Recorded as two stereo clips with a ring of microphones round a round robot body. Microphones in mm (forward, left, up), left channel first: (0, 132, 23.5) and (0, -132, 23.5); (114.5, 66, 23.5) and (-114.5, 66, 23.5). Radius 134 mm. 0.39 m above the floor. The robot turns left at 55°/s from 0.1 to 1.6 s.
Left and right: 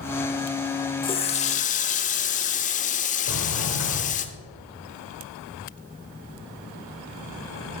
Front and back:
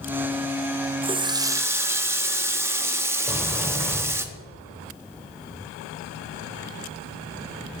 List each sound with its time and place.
1.0 s a running tap: 145° left, 0.8 m; by 4.2 s 110° left, 0.8 m
3.2 s a sliding door: 85° left, 2 m